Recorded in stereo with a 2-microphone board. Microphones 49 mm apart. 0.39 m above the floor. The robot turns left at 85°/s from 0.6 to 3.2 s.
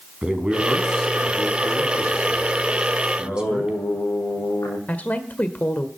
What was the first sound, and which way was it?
A man speaking, 155° right.